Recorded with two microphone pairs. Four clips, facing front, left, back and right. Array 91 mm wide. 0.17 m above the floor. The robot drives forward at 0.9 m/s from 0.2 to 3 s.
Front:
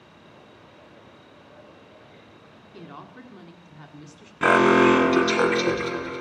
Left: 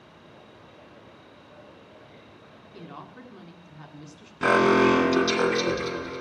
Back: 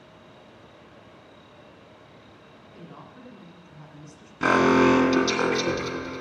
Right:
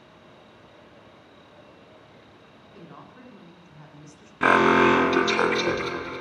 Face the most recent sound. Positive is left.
turn(degrees=-65)